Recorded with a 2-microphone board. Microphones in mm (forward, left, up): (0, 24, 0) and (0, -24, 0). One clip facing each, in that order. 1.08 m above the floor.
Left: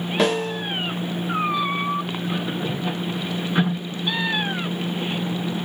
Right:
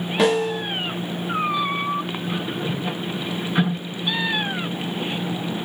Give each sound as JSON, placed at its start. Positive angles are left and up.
{"t": 0.2, "sound": "a snare drum", "side_deg": 0, "distance_m": 1.0}